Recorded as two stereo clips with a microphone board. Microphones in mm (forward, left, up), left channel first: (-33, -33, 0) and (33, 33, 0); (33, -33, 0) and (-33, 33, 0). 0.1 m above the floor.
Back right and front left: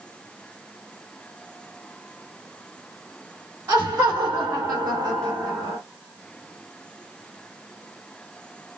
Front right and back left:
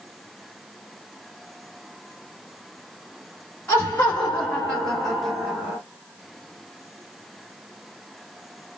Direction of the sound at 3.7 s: 15° left.